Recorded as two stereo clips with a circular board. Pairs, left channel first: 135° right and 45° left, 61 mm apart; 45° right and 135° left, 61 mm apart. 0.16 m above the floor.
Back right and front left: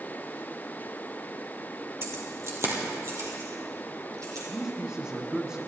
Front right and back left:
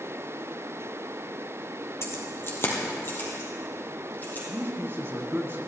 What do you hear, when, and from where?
2.0 s keys jangling: straight ahead, 2.5 m; by 4.4 s 15° left, 4 m
4.5 s a man speaking: 115° left, 2.0 m